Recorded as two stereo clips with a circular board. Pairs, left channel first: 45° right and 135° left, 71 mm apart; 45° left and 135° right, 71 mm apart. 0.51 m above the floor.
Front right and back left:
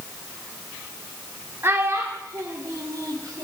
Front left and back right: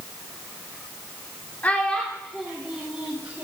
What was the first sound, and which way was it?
A child speaking, 100° left.